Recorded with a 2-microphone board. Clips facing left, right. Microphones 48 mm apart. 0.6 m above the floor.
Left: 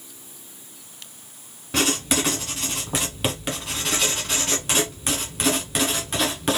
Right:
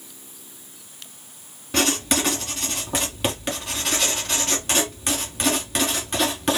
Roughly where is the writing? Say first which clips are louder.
Right 1 dB; centre.